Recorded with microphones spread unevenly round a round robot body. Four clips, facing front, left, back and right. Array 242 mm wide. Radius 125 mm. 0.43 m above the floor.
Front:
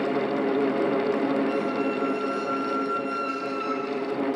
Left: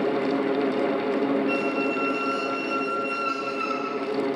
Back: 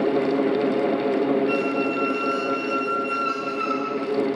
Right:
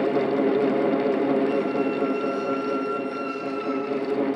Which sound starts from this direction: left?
A squeak, at 1.5 s.